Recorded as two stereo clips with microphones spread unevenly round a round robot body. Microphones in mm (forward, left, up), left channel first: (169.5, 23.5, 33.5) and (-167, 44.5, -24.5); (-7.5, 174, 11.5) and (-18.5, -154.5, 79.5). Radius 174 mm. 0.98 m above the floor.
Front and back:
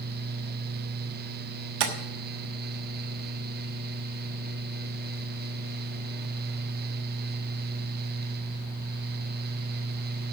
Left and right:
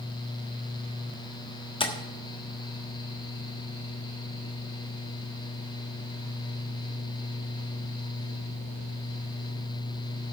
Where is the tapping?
165° left, 1.3 m.